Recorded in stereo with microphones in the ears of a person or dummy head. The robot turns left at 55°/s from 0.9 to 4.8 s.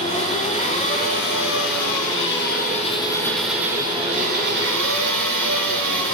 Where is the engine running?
140° left, 7.5 m; by 6.2 s 75° right, 7.5 m.